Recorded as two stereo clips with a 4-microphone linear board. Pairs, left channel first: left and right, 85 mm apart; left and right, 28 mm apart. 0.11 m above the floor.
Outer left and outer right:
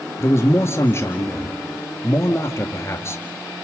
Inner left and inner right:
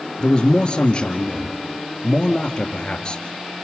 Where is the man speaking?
30° left (ahead or behind), 1.8 m.